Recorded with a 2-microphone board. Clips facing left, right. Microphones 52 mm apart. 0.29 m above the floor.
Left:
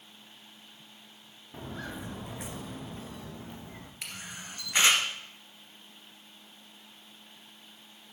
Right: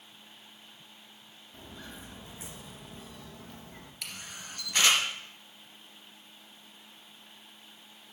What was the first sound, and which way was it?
Footsteps, 60° left (ahead or behind).